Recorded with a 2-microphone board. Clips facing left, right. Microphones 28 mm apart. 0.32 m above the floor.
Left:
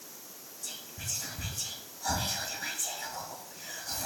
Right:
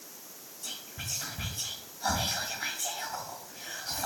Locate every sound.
0.6 s whispering: 50° right (ahead or behind), 1.4 m